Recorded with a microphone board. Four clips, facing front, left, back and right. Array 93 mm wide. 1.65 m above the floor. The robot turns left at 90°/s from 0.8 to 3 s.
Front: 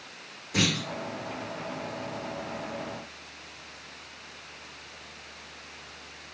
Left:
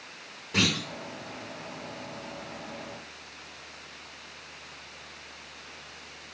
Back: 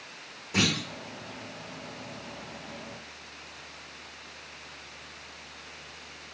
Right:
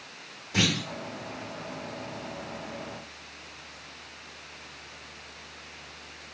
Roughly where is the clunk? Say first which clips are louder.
Even, even; behind left.